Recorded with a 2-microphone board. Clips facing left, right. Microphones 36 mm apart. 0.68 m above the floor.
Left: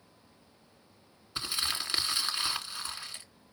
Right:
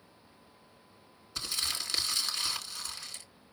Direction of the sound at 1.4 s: 25° left (ahead or behind).